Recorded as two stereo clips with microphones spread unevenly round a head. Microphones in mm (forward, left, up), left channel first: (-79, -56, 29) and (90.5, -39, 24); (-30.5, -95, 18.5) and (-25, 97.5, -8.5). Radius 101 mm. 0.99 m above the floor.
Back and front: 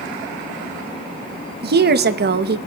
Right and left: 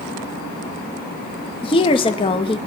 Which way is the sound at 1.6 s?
25° right.